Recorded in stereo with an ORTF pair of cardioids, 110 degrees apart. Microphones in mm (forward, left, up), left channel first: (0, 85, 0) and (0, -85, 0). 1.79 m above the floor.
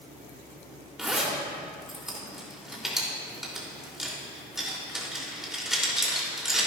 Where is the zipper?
Straight ahead, 3 m.